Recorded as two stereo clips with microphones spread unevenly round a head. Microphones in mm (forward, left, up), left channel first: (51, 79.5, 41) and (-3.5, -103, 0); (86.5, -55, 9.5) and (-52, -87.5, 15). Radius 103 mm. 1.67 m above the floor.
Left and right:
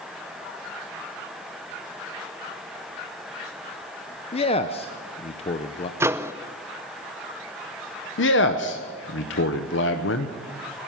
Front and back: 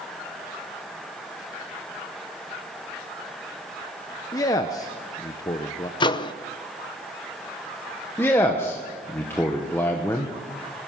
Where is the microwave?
20° right, 0.6 m.